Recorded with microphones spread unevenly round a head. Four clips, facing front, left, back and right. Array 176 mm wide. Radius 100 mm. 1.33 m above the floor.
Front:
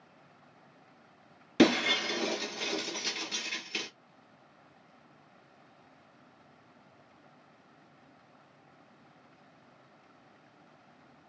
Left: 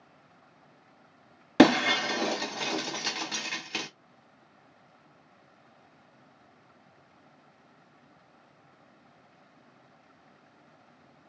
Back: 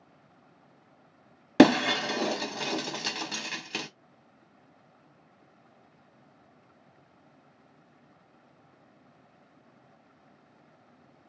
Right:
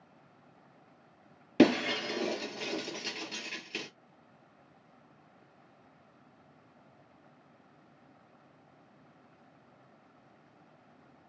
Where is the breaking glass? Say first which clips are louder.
Left 4 dB, back 6 dB; 120° left, 0.7 m.